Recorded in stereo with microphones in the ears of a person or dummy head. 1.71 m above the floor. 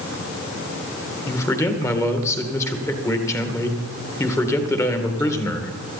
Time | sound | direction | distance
1.3 | a man speaking | 20° left (ahead or behind) | 2 m